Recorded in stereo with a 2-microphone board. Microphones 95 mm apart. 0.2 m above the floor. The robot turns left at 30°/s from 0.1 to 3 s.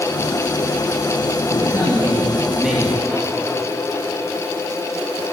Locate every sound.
1.6 s a man speaking: 145° right, 3.5 m; by 3.3 s 175° left, 3.5 m